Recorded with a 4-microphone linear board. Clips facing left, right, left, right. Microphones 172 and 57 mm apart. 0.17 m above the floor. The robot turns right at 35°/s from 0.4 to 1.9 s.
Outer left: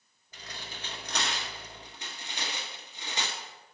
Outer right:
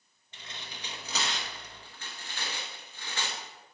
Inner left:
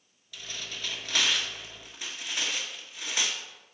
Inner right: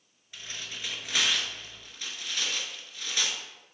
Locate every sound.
0.3 s tearing paper: 30° right (ahead or behind), 1.5 m; by 3.4 s 20° left (ahead or behind), 1.5 m